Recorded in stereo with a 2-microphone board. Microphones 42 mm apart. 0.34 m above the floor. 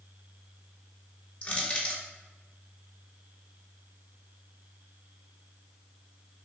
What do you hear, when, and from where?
1.4 s crushing: 25° left (ahead or behind), 0.8 m